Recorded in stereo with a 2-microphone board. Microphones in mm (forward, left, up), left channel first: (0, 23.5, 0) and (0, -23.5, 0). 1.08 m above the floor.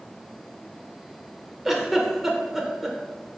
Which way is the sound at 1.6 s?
5° right (ahead or behind).